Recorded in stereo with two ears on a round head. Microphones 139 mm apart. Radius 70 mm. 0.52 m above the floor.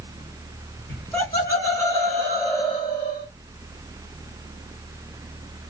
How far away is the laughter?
About 2 m.